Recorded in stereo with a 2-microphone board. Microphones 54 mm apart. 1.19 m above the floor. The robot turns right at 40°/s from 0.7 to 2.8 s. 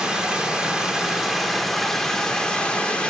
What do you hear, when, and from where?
0.0 s running water: 15° right (ahead or behind), 0.8 m; by 3.1 s 20° left (ahead or behind), 0.8 m